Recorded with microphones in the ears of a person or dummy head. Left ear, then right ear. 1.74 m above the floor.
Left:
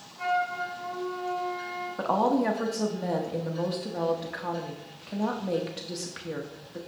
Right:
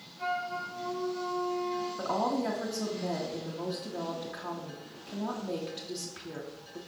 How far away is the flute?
About 3.5 m.